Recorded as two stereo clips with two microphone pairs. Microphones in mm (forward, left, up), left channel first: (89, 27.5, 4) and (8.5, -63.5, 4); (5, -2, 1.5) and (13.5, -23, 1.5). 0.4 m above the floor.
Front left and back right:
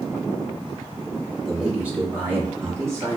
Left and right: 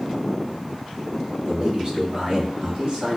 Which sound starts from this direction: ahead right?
A man speaking, at 1.4 s.